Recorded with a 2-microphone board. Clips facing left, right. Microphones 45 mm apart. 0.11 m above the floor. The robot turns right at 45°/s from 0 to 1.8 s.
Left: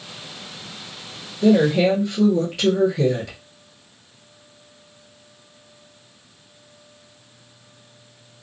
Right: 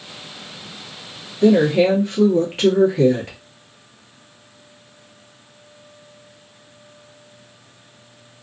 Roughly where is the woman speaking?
Right.